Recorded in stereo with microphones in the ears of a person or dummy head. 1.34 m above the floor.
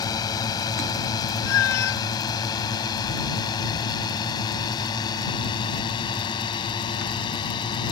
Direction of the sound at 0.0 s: 25° left (ahead or behind).